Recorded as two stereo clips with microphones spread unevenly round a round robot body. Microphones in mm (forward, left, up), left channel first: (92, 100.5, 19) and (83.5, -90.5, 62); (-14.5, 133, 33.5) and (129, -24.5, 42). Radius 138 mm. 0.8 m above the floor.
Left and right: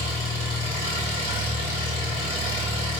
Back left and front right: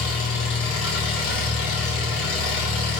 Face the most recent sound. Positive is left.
turn(degrees=150)